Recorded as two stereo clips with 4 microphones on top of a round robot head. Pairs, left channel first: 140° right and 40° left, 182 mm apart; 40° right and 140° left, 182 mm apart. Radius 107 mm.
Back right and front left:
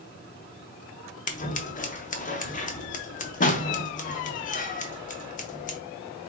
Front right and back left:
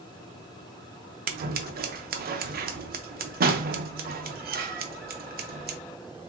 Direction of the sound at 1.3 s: 175° left.